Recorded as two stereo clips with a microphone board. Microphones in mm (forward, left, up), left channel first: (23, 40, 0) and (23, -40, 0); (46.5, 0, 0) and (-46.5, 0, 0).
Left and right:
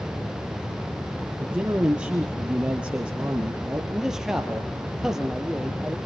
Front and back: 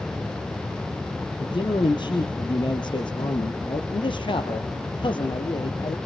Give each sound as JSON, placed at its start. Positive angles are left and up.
{"t": 1.4, "sound": "a man speaking", "azimuth_deg": -15, "distance_m": 2.5}
{"t": 3.9, "sound": "a man speaking", "azimuth_deg": -5, "distance_m": 2.0}